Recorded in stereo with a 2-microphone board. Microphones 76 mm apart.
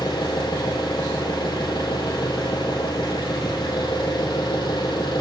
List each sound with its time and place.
0.0 s an engine running: 75° left (ahead or behind), 5 m